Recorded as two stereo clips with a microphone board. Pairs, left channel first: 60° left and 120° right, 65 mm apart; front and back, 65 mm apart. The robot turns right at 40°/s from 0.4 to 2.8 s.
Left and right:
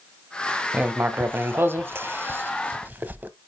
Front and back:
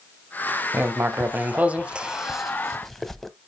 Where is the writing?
165° right, 0.6 m; by 3.3 s 85° right, 0.6 m.